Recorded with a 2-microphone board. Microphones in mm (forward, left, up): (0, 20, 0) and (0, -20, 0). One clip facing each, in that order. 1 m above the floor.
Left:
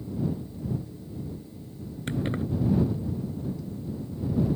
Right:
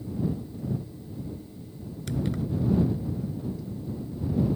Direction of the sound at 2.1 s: 35° left (ahead or behind).